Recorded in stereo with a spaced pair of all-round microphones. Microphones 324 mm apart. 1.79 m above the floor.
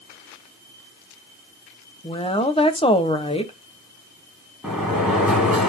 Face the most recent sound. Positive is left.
turn(degrees=-5)  # may be behind; listen again after turning